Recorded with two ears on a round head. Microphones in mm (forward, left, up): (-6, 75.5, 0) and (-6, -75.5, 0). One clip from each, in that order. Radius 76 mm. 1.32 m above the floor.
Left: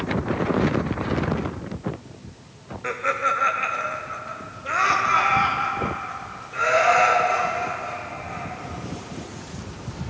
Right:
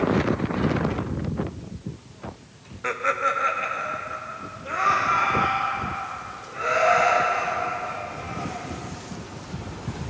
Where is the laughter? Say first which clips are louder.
Even; 10° right (ahead or behind), 0.7 m; by 8.5 s 55° left (ahead or behind), 3.5 m.